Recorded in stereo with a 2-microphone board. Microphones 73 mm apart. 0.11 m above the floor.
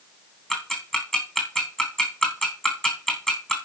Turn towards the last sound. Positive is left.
turn(degrees=10)  # may be behind; listen again after turning